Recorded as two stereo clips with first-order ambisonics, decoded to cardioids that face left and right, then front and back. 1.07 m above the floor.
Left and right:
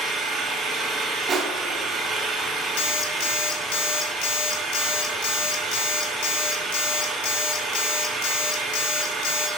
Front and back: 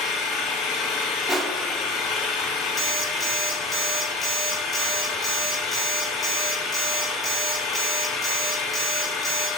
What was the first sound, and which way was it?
An engine running, 25° right.